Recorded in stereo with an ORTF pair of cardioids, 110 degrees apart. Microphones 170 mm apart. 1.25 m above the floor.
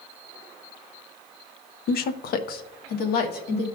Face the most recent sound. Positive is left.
turn(degrees=65)